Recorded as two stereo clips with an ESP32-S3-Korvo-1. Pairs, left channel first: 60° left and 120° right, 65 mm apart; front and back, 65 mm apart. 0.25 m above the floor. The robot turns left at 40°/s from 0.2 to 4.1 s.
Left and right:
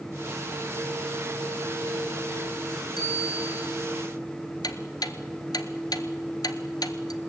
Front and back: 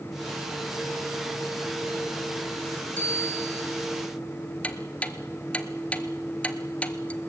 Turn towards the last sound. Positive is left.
turn(degrees=70)